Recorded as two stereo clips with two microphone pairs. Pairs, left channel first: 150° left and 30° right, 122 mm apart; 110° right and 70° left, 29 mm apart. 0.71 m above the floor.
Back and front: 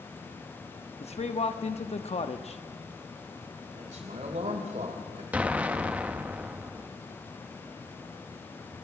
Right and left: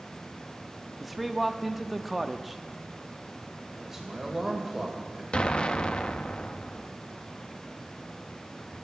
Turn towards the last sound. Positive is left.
turn(degrees=-95)